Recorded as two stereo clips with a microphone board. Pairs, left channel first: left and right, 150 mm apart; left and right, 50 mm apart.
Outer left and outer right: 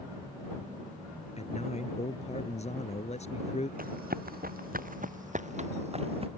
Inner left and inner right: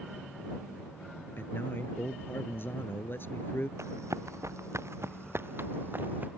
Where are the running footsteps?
75° right (ahead or behind); by 6.3 s 40° right (ahead or behind).